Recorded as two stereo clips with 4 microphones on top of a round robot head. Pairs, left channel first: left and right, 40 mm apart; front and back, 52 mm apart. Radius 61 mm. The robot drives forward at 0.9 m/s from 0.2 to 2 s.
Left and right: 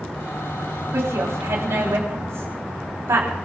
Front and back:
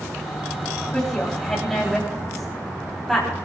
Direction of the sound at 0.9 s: 80° right.